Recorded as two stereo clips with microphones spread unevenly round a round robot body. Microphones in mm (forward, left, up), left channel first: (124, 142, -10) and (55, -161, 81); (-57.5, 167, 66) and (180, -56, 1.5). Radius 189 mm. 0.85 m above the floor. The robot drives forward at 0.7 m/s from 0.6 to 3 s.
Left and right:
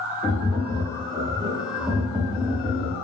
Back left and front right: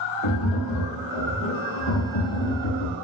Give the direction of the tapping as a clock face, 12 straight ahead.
6 o'clock.